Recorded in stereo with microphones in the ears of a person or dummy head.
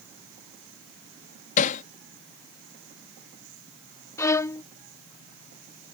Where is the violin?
20° left (ahead or behind).